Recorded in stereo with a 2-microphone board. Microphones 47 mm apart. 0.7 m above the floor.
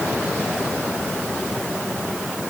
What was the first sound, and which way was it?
Only background noise.